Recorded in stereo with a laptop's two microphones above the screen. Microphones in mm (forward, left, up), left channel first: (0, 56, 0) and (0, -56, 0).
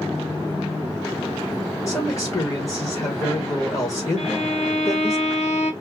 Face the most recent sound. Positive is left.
turn(degrees=75)  # may be behind; listen again after turning